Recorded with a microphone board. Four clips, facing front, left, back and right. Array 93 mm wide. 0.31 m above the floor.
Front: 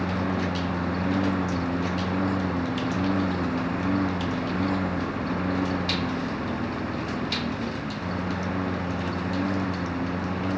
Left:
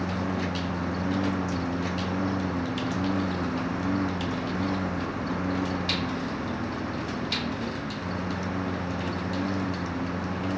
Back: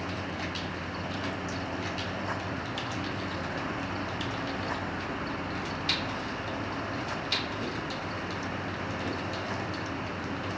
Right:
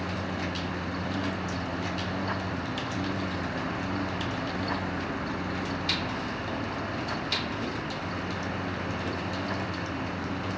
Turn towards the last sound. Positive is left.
turn(degrees=25)